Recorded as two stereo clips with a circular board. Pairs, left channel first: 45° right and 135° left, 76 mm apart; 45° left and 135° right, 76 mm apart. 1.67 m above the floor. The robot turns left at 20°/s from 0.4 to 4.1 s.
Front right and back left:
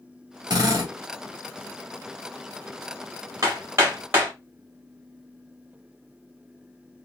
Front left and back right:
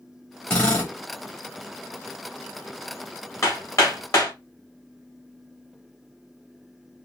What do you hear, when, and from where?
0.5 s a drill: 125° left, 2.0 m; by 0.9 s 115° left, 2.0 m
3.4 s hammering: 90° left, 1.9 m; by 4.3 s 75° left, 1.9 m